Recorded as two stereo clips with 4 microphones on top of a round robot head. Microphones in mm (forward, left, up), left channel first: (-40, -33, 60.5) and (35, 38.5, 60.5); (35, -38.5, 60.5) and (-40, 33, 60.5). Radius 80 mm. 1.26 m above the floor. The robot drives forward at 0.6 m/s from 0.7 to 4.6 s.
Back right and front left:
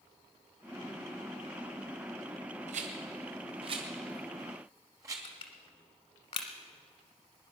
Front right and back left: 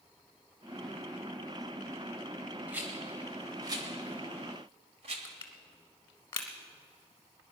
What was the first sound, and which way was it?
A rattle, 60° left.